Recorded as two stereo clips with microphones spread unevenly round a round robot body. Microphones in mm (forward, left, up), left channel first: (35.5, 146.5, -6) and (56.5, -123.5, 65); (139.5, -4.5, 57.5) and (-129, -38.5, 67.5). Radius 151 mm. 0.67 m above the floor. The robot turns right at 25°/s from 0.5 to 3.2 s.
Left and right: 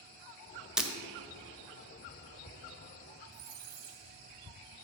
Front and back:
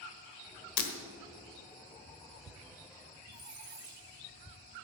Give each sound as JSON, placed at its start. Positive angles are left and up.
{"t": 0.8, "sound": "breaking glass", "azimuth_deg": 5, "distance_m": 1.6}
{"t": 3.3, "sound": "a squeak", "azimuth_deg": -95, "distance_m": 2.5}